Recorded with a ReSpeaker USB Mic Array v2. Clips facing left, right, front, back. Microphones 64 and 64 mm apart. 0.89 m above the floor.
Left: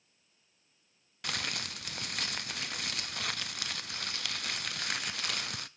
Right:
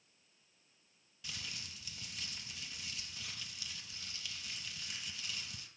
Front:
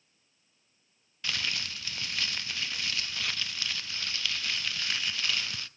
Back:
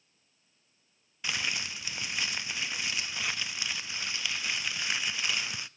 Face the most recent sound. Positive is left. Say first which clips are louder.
# left 12 dB, back 1 dB
turn(degrees=105)